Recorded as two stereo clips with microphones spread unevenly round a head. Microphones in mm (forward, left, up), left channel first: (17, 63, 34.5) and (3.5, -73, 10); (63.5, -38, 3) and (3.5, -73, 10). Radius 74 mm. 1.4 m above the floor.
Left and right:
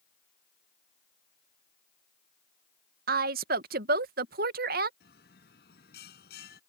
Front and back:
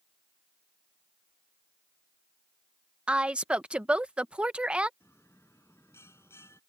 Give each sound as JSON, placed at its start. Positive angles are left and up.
{"t": 3.1, "sound": "a woman speaking", "azimuth_deg": -75}
{"t": 5.0, "sound": "a bell", "azimuth_deg": 105}